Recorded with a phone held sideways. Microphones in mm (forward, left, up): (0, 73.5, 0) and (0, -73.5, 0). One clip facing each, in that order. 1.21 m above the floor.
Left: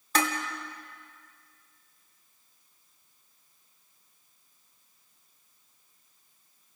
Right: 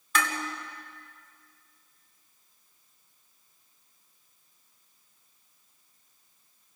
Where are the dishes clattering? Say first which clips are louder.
Left 2 dB; 40° left (ahead or behind), 2.5 m.